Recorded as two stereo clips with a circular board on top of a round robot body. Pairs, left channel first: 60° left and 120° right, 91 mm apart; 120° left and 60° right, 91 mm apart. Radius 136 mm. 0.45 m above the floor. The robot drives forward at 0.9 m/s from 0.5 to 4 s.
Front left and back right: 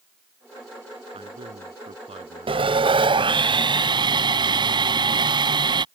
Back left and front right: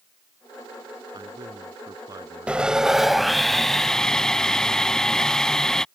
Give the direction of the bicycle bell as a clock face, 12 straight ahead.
I don't hear a bicycle bell.